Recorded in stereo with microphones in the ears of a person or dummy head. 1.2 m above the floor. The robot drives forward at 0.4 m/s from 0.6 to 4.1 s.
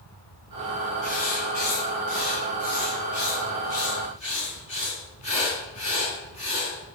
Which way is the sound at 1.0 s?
50° left (ahead or behind).